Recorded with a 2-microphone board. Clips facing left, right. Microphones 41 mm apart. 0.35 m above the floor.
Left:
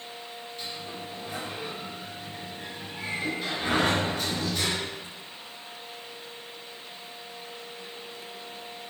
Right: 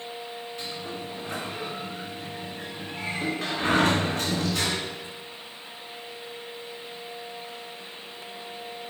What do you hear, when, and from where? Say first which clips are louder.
0.6 s a sliding door: right 1 dB; 75° right (ahead or behind), 2.5 m